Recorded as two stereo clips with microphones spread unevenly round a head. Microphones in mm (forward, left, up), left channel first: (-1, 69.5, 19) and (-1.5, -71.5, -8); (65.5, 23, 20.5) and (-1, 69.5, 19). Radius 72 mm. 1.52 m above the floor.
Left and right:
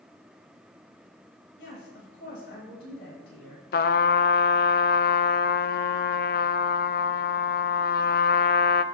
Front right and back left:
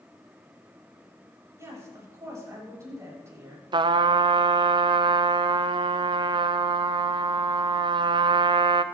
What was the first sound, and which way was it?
A woman speaking, 95° left.